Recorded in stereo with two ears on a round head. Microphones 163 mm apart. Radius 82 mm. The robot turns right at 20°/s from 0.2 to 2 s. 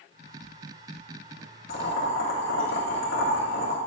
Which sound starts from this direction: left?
Boiling, at 1.7 s.